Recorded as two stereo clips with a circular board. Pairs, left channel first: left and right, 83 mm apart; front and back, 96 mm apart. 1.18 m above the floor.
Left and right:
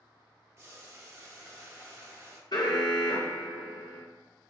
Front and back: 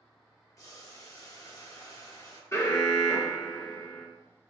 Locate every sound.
0.6 s boiling: 40° right, 1.0 m
2.5 s an alarm: 60° left, 1.1 m